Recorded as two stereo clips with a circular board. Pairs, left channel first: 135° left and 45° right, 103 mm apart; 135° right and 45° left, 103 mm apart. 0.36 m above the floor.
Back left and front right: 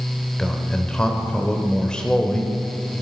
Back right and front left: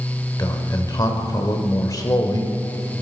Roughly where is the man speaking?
Behind right.